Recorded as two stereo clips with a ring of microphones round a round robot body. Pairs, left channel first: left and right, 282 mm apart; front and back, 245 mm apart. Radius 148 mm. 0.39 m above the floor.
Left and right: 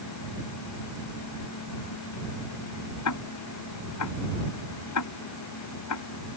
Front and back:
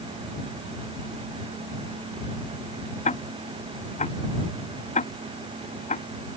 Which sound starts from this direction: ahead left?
Ticking, at 3.0 s.